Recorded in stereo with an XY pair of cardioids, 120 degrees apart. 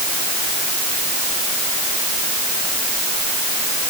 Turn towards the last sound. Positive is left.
No sound to turn to.